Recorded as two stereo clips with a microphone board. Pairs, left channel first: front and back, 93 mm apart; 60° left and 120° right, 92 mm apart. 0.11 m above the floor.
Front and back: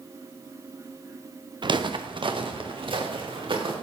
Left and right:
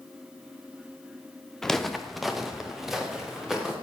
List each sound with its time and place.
1.6 s footsteps: 145° left, 1.2 m; by 3.7 s 155° left, 3.5 m